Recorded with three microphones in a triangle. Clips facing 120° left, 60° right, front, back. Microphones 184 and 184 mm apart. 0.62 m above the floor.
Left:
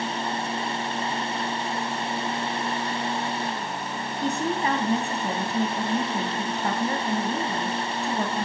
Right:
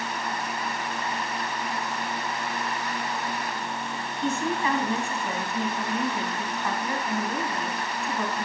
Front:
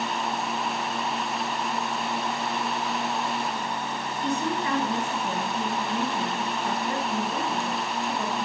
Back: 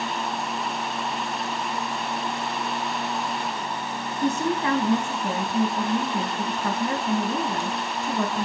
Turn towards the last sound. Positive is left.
turn(degrees=175)